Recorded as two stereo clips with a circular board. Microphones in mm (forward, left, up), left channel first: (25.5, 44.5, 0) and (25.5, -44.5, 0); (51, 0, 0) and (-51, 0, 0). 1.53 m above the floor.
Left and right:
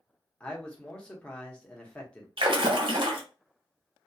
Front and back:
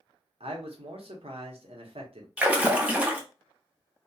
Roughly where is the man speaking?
Behind.